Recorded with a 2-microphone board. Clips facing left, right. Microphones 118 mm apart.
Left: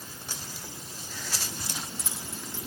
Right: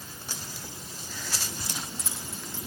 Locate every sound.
1.6 s keys jangling: 70° left (ahead or behind), 5.5 m